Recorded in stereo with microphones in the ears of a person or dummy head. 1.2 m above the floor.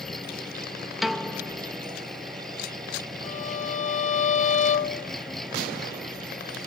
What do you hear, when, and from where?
0.0 s an engine running: 5° left (ahead or behind)
1.0 s a piano: 10° right (ahead or behind)
3.2 s a violin: 35° left (ahead or behind)